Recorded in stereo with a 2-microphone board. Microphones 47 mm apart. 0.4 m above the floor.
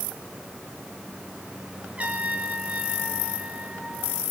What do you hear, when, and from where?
2.0 s a trumpet: 30° right (ahead or behind), 2.5 m